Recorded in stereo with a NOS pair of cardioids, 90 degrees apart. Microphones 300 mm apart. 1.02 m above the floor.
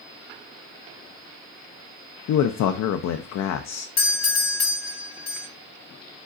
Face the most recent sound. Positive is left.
turn(degrees=60)